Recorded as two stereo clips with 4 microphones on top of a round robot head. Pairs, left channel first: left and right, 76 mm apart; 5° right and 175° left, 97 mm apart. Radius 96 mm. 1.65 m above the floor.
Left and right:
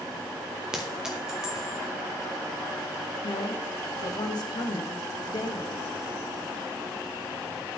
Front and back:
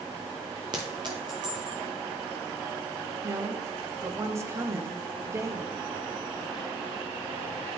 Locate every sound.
0.7 s a clink: 165° right, 0.6 m
3.2 s a woman speaking: 115° left, 0.9 m